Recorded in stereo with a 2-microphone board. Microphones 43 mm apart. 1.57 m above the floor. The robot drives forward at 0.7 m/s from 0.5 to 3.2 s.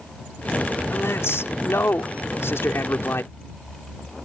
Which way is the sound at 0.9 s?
85° left.